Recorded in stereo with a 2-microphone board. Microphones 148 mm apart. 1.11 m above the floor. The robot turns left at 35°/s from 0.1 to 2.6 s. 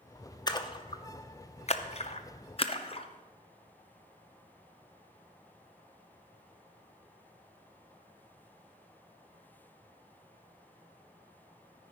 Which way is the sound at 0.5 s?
30° left (ahead or behind).